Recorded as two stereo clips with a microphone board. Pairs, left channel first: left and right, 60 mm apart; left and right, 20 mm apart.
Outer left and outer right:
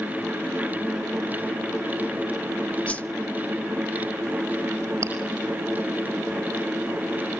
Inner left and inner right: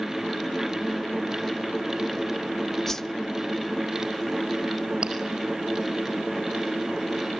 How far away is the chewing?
About 5.5 m.